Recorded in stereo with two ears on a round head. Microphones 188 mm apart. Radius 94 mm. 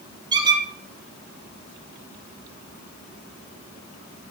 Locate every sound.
0.3 s a squeak: 20° right (ahead or behind), 2.5 m